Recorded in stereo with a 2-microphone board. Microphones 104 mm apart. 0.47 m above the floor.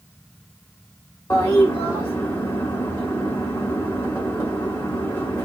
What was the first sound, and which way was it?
A toilet flushing, 25° left (ahead or behind).